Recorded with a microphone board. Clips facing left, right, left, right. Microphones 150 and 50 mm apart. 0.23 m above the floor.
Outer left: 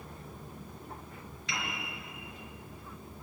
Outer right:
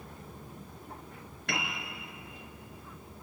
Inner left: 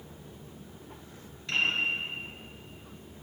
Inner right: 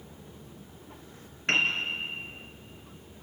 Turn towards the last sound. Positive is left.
turn(degrees=-60)  # may be behind; listen again after turning